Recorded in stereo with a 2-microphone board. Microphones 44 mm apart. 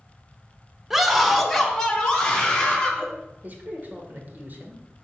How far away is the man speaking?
About 1.3 m.